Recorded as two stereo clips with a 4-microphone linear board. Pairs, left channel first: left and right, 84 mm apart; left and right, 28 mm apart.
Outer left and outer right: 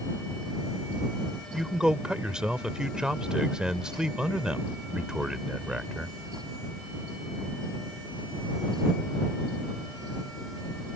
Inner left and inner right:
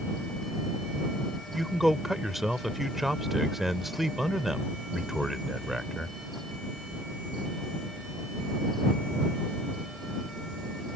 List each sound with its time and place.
1.5 s a man speaking: 10° right (ahead or behind)